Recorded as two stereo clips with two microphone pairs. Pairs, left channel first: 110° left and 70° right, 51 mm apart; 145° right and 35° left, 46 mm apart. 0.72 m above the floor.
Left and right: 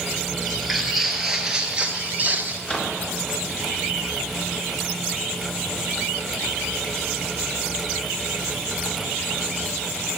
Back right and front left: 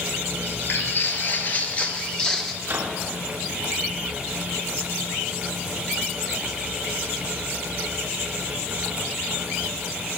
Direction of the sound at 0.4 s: 165° right.